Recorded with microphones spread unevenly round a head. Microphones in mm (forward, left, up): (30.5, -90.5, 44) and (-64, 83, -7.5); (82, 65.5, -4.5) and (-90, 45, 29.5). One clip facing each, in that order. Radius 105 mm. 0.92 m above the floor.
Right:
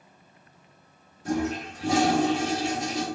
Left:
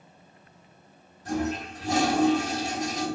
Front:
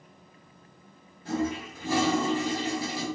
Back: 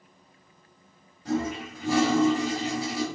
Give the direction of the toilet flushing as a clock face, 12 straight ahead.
3 o'clock.